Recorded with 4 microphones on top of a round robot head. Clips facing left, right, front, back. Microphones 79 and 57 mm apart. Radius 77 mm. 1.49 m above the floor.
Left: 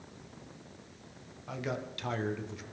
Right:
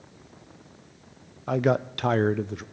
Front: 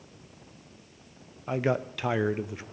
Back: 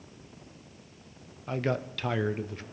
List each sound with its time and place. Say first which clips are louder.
1.5 s a man speaking: right 14 dB, front 3 dB; 75° right, 0.6 m